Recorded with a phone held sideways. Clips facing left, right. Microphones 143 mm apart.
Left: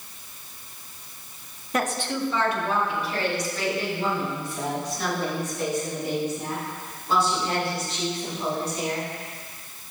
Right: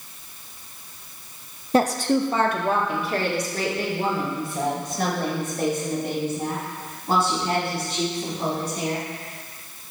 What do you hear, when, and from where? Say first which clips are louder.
1.7 s a woman speaking: right 7 dB; 30° right (ahead or behind), 0.7 m; by 9.1 s 55° right (ahead or behind), 8.5 m